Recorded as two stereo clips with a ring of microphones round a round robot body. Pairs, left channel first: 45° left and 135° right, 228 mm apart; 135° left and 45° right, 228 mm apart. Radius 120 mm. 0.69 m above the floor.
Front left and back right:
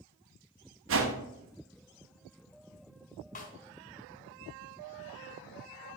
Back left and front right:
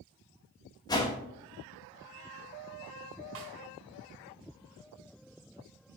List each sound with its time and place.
0.9 s a whoosh: 155° right, 1.6 m
3.4 s a snare drum: 15° right, 2 m